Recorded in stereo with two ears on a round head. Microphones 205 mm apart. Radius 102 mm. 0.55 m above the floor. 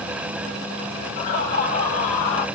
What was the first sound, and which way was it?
Laughter, 50° left (ahead or behind).